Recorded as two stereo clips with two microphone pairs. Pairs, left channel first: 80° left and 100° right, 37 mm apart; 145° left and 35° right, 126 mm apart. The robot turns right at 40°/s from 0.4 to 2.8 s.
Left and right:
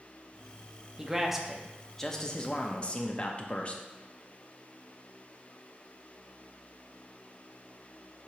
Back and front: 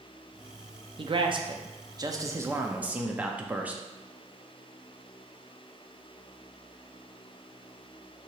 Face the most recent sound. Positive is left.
turn(degrees=35)